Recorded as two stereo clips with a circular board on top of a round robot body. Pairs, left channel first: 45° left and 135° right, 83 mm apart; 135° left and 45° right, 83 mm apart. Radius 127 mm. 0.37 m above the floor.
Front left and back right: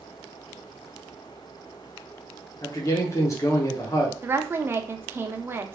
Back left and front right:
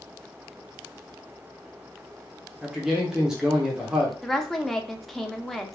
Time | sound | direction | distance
2.6 | a man speaking | 35° left | 1.2 m
4.2 | a woman speaking | 145° right | 0.8 m